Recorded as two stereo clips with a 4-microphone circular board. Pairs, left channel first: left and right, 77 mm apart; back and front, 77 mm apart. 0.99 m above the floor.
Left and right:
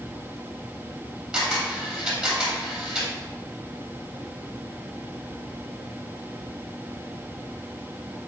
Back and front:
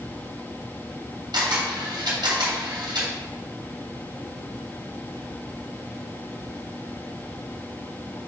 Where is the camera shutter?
10° right, 2.5 m.